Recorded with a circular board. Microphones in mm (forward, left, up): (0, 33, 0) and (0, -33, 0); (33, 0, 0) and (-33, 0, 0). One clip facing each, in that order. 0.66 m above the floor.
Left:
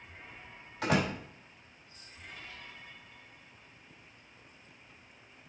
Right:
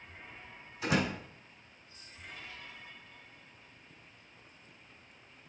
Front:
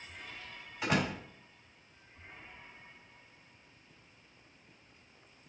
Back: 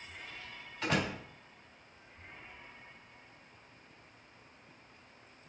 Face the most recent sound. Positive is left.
turn(degrees=80)